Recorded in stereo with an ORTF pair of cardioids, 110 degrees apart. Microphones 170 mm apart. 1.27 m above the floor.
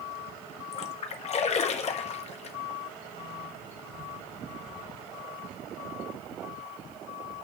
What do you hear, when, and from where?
0.7 s a splash: 45° left, 1.2 m